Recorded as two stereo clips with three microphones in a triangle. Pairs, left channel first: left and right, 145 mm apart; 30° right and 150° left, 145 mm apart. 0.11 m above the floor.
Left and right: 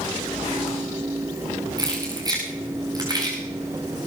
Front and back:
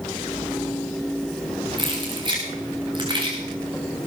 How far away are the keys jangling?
About 7.5 m.